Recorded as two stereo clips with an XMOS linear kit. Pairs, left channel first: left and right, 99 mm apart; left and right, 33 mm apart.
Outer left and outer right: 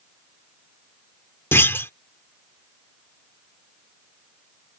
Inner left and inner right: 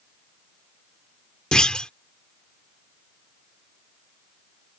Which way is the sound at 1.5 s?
25° left (ahead or behind).